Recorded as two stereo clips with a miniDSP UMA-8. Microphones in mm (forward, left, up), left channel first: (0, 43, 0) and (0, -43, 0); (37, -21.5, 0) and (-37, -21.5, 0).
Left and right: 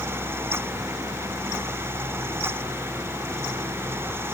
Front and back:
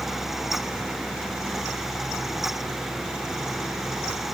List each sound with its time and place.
Only background noise.